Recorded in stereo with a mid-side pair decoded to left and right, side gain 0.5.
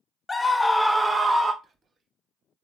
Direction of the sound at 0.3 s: 25° left.